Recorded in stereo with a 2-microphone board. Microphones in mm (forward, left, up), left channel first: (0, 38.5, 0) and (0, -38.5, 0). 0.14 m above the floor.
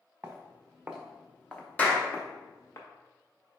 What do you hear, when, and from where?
0.2 s footsteps: 35° right (ahead or behind), 1.1 m; by 2.8 s 40° left (ahead or behind), 1.3 m
1.8 s a clap: 20° left (ahead or behind), 1.1 m